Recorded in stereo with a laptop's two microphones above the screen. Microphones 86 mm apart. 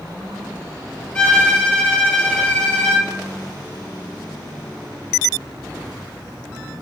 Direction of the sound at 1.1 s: 15° left (ahead or behind).